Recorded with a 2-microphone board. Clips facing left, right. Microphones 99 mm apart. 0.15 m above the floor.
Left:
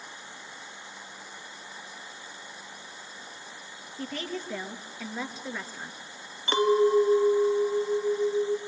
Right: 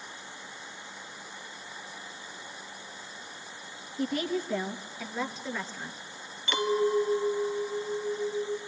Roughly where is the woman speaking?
Centre.